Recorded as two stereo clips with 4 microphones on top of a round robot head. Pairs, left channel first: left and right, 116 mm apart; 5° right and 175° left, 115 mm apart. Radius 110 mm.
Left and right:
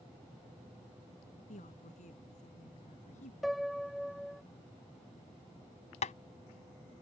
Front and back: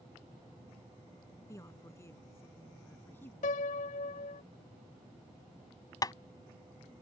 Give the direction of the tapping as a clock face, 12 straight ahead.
10 o'clock.